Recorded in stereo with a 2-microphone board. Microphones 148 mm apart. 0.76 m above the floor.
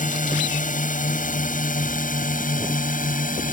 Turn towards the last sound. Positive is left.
turn(degrees=65)  # may be behind; listen again after turning